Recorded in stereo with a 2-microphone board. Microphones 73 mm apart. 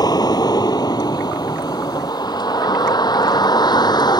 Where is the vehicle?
65° left (ahead or behind); by 4.2 s 75° left (ahead or behind).